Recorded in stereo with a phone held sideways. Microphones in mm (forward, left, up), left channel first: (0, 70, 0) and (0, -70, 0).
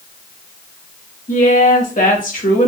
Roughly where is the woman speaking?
Left.